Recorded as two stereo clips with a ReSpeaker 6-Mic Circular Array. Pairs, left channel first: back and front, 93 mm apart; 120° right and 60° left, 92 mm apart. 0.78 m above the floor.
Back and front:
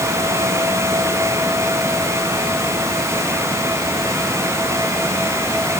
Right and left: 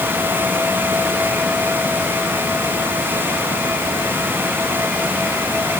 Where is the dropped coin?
No dropped coin in this recording.